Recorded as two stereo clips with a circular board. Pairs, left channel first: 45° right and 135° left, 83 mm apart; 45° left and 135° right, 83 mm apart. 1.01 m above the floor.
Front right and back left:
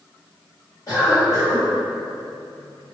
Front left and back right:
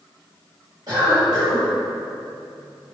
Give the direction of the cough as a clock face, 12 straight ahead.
3 o'clock.